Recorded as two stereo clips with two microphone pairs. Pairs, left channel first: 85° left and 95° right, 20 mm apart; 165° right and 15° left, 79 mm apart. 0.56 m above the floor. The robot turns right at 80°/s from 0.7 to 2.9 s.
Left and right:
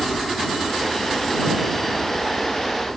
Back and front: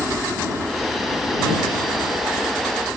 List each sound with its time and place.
0.0 s a helicopter: 80° left; by 3.0 s 105° right